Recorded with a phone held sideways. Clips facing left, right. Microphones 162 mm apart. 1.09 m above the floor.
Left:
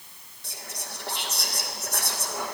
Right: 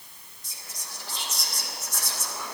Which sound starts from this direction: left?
Whispering, at 0.4 s.